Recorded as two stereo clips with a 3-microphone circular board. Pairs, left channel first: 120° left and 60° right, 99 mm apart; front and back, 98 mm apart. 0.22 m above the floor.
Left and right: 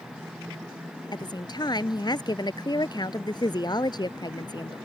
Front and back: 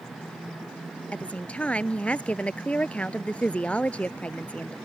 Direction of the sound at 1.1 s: 75° left.